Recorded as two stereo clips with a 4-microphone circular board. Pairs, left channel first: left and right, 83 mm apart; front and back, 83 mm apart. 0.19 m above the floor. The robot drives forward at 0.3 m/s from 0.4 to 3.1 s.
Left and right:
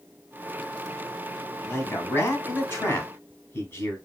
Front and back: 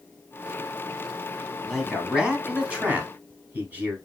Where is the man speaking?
90° left, 1.1 m; by 4.0 s 125° left, 1.2 m.